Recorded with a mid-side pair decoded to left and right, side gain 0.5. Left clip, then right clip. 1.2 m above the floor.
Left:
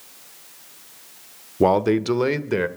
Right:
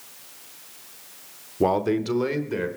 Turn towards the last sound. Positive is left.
turn(degrees=50)